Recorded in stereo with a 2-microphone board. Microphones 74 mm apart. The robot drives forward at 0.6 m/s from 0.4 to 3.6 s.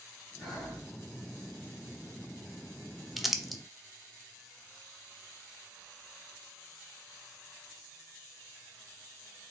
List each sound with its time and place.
0.4 s breathing: 15° left (ahead or behind), 3 m
3.2 s crumpling: centre (ahead or behind), 0.5 m